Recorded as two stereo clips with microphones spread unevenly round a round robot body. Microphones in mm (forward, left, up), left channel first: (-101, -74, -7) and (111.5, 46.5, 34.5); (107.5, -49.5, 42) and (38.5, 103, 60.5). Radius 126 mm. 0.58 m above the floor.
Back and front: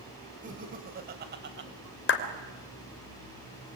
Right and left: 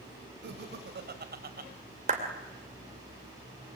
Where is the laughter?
95° left, 3.5 m; by 1.7 s 80° left, 3 m.